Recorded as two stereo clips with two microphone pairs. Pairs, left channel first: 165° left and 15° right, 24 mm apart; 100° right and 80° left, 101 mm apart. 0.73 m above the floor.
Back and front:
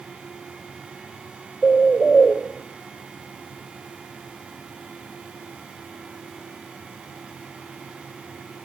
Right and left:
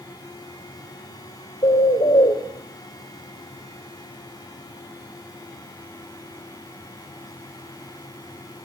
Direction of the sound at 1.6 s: 125° right.